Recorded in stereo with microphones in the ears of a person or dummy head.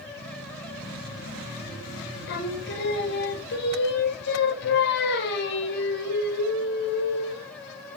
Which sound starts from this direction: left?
Singing, at 2.3 s.